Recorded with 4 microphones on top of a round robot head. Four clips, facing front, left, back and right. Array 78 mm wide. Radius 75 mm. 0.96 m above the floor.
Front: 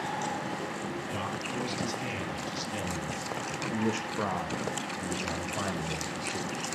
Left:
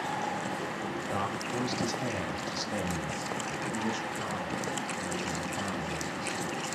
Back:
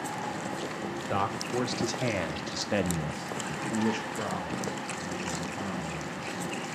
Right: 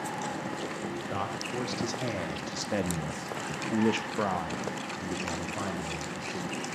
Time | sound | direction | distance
1.1 | a man speaking | straight behind | 3 m